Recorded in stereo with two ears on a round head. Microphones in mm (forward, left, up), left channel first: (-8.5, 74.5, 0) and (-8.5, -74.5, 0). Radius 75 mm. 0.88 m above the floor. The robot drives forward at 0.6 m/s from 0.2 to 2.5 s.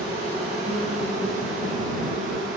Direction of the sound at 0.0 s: 40° right (ahead or behind).